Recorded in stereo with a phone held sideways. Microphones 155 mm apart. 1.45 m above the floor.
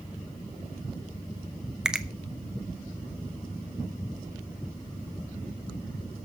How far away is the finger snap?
About 1.0 m.